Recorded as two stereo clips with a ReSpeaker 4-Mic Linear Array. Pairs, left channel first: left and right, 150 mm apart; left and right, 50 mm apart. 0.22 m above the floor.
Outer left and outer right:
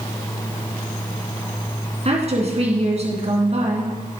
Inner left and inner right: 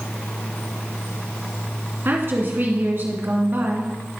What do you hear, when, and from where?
2.0 s a woman speaking: 45° right (ahead or behind), 2.5 m